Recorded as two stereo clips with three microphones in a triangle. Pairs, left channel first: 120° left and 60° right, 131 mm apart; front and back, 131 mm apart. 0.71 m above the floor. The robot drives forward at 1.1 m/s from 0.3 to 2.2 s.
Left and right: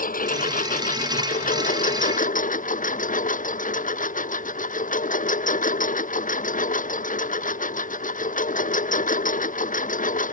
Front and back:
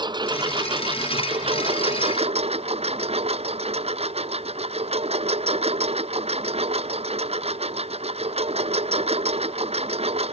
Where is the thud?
I don't hear a thud.